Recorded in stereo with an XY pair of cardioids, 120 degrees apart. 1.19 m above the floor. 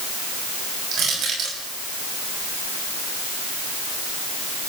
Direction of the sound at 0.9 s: 65° right.